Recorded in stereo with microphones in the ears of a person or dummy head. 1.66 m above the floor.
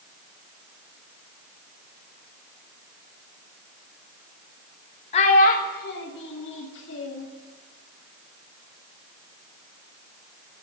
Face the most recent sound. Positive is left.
turn(degrees=65)  # may be behind; listen again after turning